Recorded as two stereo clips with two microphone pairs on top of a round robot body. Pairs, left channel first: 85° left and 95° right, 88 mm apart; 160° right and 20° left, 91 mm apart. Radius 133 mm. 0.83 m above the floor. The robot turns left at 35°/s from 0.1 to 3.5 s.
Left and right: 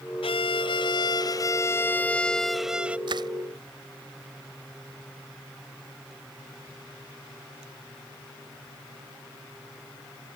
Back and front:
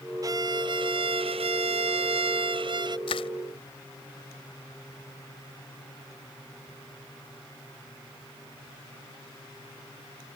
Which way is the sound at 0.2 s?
75° left.